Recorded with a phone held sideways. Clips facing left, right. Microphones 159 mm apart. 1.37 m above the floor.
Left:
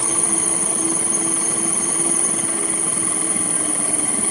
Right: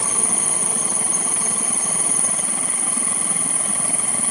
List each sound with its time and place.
0.0 s an insect: 70° left (ahead or behind)